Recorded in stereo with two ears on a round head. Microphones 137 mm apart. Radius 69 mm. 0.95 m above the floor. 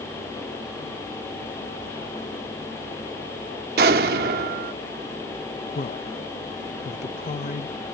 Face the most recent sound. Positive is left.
turn(degrees=45)  # may be behind; listen again after turning